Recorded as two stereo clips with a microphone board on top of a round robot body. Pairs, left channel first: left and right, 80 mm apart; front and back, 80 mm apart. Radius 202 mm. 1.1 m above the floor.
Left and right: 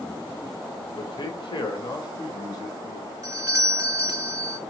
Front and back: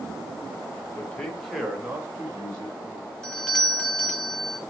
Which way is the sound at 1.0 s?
65° left.